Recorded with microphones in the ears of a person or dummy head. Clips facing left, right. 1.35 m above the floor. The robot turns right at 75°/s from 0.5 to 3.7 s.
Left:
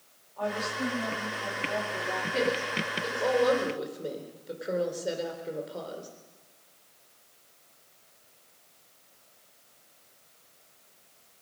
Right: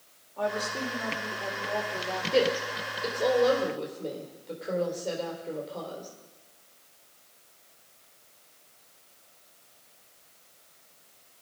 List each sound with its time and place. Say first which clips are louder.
0.4 s a woman speaking: right 1 dB; 140° right, 4.5 m; by 2.2 s 10° right, 4.5 m
2.3 s a woman speaking: right 5 dB; 85° right, 4 m; by 6.1 s 10° left (ahead or behind), 4 m